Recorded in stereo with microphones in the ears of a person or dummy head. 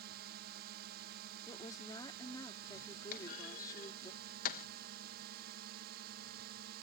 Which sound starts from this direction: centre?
A woman speaking, at 1.5 s.